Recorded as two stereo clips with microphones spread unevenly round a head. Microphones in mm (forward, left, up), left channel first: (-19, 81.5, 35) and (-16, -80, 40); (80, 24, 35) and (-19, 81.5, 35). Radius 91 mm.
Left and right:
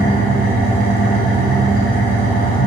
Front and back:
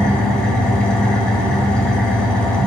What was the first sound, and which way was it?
An engine running, 55° left.